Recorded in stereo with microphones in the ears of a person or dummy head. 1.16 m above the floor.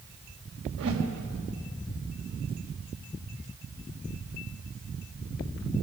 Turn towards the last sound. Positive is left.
turn(degrees=-80)